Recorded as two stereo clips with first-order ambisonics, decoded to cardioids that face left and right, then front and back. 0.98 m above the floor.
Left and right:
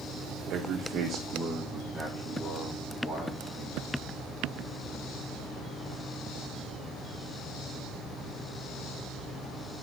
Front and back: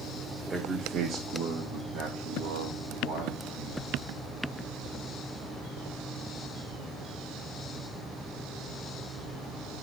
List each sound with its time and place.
0.5 s a man speaking: 110° right, 0.8 m; by 3.9 s 170° left, 2.5 m